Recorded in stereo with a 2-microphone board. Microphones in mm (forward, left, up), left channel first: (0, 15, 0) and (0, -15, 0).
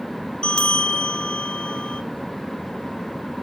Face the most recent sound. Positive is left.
turn(degrees=30)  # may be behind; listen again after turning